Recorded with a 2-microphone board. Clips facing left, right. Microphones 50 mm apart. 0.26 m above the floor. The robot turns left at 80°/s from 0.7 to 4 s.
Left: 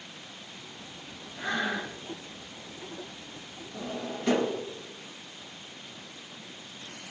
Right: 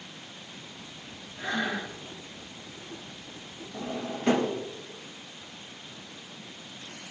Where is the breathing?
115° left, 2.0 m; by 1.9 s 70° left, 2.0 m.